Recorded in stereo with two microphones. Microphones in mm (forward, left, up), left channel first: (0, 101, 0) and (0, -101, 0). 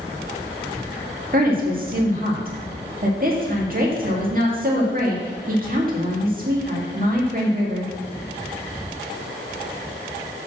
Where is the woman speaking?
45° right (ahead or behind), 2 m.